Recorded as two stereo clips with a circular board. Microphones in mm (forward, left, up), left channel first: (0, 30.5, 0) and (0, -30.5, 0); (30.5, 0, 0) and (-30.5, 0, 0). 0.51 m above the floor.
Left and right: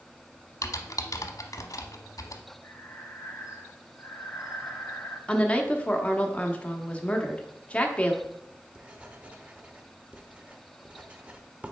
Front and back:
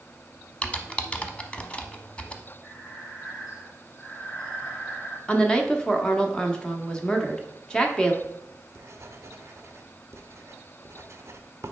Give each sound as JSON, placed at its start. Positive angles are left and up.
{"t": 0.6, "sound": "typing on a keyboard", "azimuth_deg": 70, "distance_m": 0.7}
{"t": 2.6, "sound": "breathing", "azimuth_deg": 55, "distance_m": 2.5}
{"t": 5.3, "sound": "a woman speaking", "azimuth_deg": 50, "distance_m": 0.9}
{"t": 8.2, "sound": "writing", "azimuth_deg": -155, "distance_m": 0.8}